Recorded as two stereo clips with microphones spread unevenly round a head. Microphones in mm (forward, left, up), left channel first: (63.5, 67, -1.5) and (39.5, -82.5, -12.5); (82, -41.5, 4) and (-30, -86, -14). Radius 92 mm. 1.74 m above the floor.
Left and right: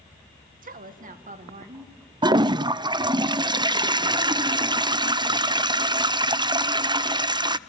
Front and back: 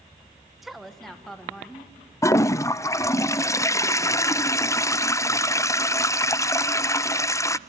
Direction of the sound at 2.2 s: 35° right.